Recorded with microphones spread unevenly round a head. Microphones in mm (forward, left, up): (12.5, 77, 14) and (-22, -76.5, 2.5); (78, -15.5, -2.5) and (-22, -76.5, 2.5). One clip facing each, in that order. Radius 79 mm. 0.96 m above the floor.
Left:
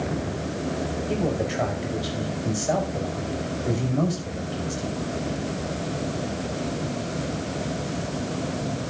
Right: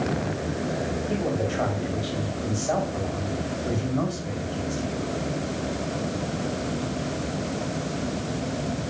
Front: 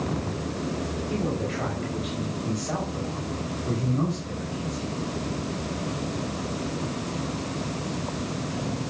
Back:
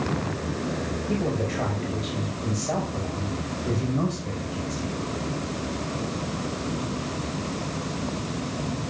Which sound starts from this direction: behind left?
A man speaking, at 1.1 s.